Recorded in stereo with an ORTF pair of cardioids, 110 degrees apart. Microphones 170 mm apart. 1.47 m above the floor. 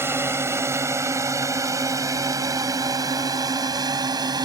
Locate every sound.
0.0 s a drone: 15° right; by 4.5 s 25° right